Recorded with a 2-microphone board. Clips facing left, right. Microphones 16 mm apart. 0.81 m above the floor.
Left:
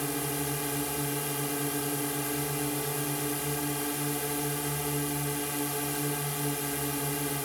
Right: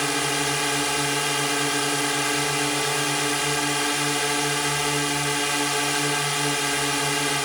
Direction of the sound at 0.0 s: 50° right (ahead or behind).